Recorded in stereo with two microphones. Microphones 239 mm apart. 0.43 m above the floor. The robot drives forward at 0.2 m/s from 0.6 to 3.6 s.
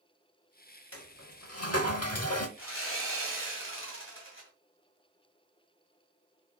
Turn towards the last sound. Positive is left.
turn(degrees=55)  # may be behind; listen again after turning